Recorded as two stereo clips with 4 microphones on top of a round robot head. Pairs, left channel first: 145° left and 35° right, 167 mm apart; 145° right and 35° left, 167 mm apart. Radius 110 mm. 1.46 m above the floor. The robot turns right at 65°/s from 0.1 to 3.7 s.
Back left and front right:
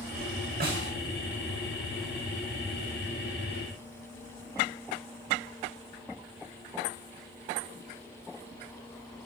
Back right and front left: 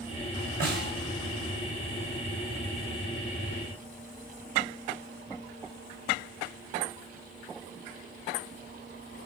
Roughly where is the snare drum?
Ahead.